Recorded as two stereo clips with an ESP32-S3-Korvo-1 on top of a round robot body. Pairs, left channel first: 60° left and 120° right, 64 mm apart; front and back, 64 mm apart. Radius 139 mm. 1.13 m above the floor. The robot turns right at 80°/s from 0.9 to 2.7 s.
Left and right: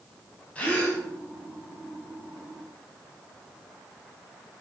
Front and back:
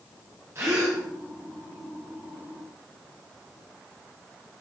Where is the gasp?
130° left, 2 m; by 1.0 s 140° left, 2 m.